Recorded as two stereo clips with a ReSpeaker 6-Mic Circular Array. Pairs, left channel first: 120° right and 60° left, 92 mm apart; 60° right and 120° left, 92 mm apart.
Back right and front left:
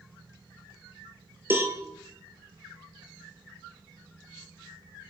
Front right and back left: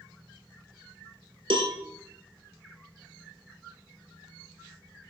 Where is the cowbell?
125° left, 1.0 m.